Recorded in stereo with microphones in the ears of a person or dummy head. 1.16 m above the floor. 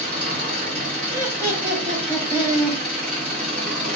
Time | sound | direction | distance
0.0 | an engine running | 40° right (ahead or behind) | 0.8 m
1.1 | laughter | 10° right (ahead or behind) | 0.6 m